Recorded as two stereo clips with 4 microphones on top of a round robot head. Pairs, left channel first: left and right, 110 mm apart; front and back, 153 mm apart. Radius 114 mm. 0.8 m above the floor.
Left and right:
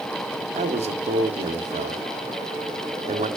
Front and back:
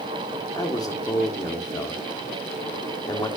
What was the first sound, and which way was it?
A man speaking, 70° right.